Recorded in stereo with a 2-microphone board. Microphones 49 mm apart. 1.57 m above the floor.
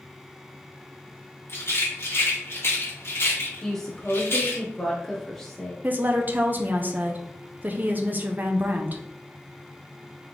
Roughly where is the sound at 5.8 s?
Right.